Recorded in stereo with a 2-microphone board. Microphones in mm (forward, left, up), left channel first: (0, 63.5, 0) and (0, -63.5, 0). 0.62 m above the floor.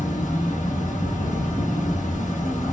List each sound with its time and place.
0.0 s an insect: 70° left (ahead or behind), 1.1 m